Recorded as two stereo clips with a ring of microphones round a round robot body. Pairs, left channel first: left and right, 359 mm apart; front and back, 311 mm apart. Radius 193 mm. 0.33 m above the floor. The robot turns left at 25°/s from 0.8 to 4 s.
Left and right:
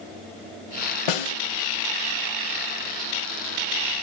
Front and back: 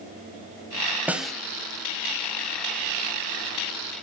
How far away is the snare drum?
About 0.9 m.